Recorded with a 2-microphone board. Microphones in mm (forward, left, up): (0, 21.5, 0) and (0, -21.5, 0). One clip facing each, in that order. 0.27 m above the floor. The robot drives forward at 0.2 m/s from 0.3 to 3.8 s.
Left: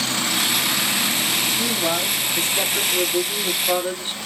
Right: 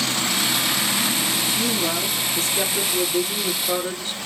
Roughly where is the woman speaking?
Left.